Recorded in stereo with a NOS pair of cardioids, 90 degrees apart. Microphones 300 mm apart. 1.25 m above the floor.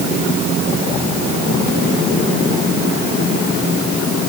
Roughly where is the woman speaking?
No woman speaking in this recording.